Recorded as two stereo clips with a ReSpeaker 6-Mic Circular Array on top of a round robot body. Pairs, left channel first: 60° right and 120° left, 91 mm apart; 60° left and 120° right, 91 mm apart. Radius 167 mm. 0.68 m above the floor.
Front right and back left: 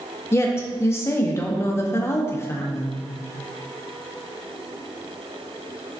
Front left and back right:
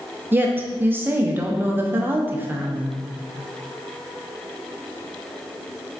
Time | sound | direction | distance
0.3 | a woman speaking | 80° right | 0.5 m